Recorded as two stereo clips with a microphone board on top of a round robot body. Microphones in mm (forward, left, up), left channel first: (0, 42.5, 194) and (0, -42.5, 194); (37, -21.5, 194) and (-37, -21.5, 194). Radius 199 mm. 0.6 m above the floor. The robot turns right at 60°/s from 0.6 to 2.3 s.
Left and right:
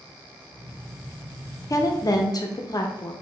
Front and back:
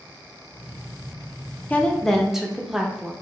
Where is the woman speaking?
60° left, 0.6 m; by 3.1 s 95° left, 0.6 m.